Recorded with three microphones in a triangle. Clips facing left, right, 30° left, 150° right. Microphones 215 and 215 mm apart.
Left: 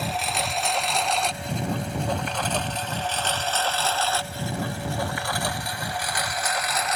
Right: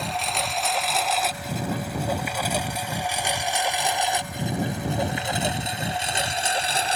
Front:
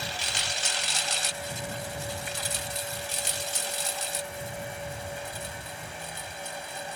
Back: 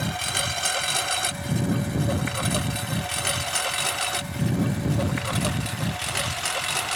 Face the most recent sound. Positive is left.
turn(degrees=-150)